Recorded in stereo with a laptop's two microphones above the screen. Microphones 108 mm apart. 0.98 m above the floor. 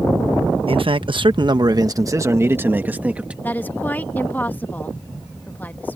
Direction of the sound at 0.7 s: 55° right (ahead or behind).